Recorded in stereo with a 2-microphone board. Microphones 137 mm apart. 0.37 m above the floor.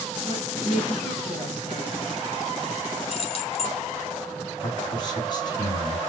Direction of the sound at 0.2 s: 40° left (ahead or behind).